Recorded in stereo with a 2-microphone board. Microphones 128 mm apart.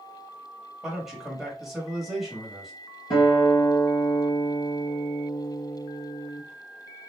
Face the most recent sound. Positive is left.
turn(degrees=40)  # may be behind; listen again after turning